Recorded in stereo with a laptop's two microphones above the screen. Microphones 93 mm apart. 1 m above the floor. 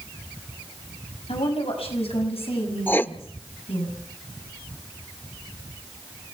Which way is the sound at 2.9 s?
20° left (ahead or behind).